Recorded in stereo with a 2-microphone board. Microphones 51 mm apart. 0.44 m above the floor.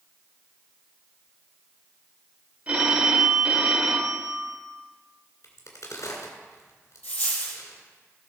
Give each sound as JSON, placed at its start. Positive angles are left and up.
{"t": 2.7, "sound": "a phone ringing", "side_deg": -25, "distance_m": 1.1}
{"t": 5.4, "sound": "a crack", "side_deg": 75, "distance_m": 2.0}
{"t": 7.0, "sound": "a dropped coin", "side_deg": 30, "distance_m": 4.0}